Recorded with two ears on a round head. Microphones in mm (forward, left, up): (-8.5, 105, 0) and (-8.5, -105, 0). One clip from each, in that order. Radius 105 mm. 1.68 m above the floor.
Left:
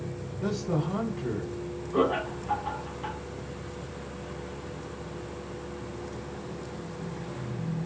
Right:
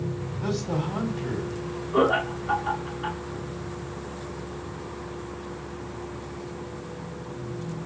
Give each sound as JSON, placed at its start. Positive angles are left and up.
{"t": 0.4, "sound": "a man speaking", "side_deg": -5, "distance_m": 1.9}
{"t": 1.9, "sound": "laughter", "side_deg": -10, "distance_m": 1.6}